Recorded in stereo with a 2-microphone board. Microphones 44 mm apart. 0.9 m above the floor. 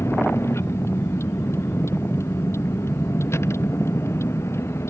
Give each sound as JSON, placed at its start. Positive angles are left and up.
{"t": 0.0, "sound": "a vehicle", "side_deg": 90}